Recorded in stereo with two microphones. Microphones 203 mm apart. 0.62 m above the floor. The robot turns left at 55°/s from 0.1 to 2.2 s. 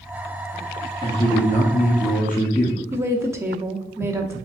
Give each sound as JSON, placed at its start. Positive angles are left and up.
{"t": 1.0, "sound": "a man speaking", "azimuth_deg": 150, "distance_m": 0.7}
{"t": 2.9, "sound": "a woman speaking", "side_deg": -15, "distance_m": 0.7}